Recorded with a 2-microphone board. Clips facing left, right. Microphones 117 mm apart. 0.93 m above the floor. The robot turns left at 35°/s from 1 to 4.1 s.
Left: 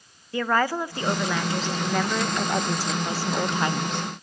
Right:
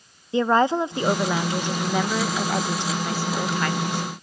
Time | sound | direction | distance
0.3 | a woman speaking | 20° right (ahead or behind) | 0.5 m